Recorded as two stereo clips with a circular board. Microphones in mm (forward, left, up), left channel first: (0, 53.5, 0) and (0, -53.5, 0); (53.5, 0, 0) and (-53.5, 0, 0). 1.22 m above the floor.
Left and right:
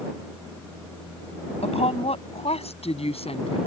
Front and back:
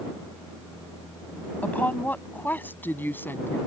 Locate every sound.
1.6 s a woman speaking: 75° left; by 3.6 s 70° left